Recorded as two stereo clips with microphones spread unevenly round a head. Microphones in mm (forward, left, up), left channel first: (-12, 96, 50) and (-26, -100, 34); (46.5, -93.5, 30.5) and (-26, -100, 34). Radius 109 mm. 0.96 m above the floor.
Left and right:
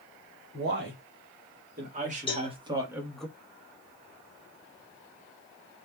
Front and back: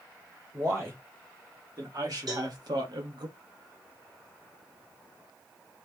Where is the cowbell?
150° left, 1.5 m.